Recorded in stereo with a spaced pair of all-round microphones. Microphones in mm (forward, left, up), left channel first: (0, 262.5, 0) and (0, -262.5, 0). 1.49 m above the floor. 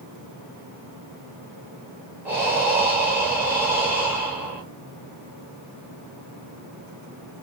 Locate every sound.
2.2 s breathing: 5° right (ahead or behind), 0.8 m